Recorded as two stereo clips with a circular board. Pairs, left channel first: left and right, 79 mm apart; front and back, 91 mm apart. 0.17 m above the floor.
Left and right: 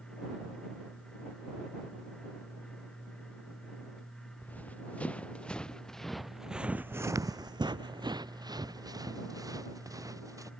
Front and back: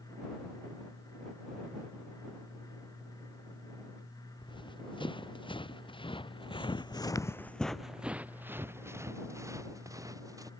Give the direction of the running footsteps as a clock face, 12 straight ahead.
11 o'clock.